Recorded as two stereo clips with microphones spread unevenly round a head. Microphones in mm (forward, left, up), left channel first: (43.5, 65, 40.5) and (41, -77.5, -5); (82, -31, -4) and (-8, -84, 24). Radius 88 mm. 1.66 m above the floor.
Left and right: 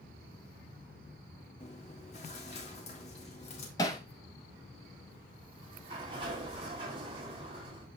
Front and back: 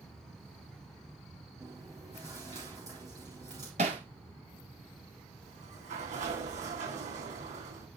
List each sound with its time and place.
1.6 s chewing: 140° left, 3.5 m
3.8 s hammering: 160° left, 2 m
5.4 s a sliding door: 155° right, 9.5 m